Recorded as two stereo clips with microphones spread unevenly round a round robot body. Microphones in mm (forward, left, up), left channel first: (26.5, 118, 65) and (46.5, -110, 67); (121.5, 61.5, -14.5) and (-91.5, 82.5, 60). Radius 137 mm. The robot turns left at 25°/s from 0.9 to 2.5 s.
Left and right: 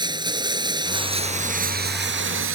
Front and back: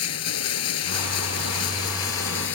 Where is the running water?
15° right; by 2.6 s 55° right.